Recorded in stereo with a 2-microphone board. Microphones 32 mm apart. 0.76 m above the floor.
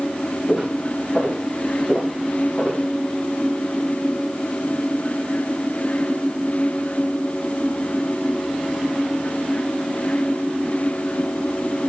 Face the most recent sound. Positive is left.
turn(degrees=50)  # may be behind; listen again after turning